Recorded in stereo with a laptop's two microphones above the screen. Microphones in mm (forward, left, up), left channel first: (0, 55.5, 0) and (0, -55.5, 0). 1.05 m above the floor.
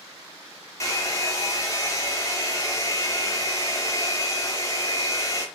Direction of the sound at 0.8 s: 30° left (ahead or behind).